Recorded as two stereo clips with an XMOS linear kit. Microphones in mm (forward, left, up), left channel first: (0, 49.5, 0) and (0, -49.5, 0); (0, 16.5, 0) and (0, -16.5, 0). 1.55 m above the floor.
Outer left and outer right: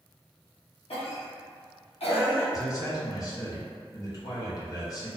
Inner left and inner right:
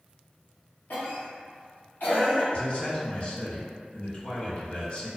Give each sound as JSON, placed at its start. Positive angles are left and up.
{"t": 0.9, "sound": "a cough", "side_deg": 75, "distance_m": 0.9}
{"t": 2.5, "sound": "a man speaking", "side_deg": 35, "distance_m": 0.8}